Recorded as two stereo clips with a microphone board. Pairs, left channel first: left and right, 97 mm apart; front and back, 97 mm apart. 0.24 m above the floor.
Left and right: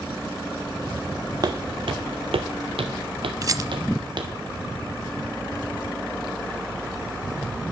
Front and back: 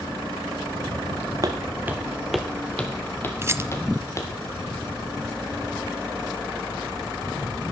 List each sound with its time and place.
1.4 s footsteps: 130° right, 0.9 m; by 4.3 s 55° right, 2.5 m
3.4 s a rattle: 130° right, 0.5 m